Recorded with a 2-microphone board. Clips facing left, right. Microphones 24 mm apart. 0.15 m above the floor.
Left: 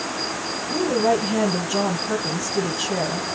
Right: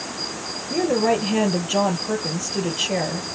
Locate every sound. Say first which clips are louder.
0.7 s a woman speaking: even; 30° right (ahead or behind), 3 m